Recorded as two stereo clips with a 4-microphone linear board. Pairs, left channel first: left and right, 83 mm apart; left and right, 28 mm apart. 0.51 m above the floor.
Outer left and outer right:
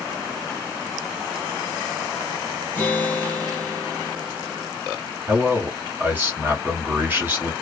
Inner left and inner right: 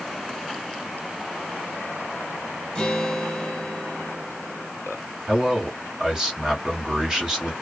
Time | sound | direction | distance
2.8 | a guitar | 20° left (ahead or behind) | 1.8 m
5.3 | a man speaking | 20° right (ahead or behind) | 1.7 m